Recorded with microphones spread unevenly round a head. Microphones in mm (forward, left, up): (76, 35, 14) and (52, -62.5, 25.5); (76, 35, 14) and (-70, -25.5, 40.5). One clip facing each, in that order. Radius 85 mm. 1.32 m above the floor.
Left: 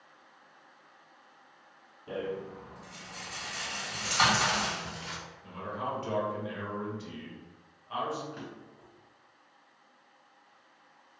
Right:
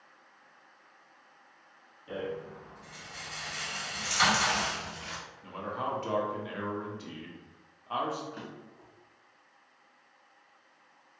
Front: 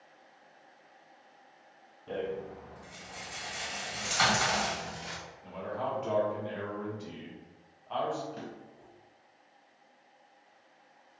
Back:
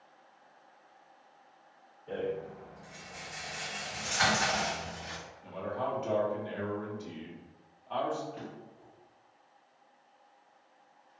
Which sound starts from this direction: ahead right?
A drawer, at 8.3 s.